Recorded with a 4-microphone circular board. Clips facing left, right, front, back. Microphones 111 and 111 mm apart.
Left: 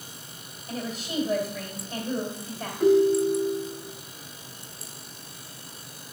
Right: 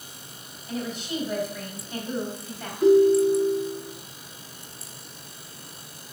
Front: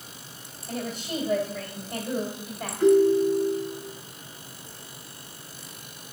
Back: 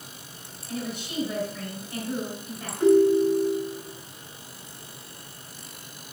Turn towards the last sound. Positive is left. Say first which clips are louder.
# right 3 dB, even
turn(degrees=110)